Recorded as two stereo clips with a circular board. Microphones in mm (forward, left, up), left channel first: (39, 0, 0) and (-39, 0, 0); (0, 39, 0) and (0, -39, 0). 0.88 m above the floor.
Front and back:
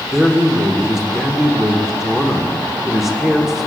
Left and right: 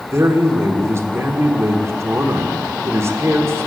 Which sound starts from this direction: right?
A man speaking, at 0.1 s.